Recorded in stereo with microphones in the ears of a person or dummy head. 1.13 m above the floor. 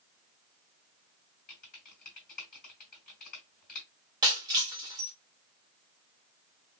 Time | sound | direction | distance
1.5 | typing on a keyboard | 45° left (ahead or behind) | 3 m
4.2 | breaking glass | 15° right (ahead or behind) | 0.6 m